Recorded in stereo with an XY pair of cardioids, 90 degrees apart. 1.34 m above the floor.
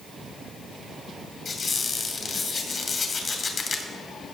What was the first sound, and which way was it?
A squeak, 60° left.